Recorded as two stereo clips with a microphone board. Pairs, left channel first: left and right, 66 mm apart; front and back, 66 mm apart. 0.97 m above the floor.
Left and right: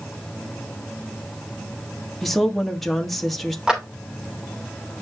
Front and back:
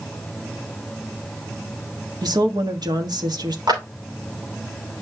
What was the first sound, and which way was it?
A woman speaking, straight behind.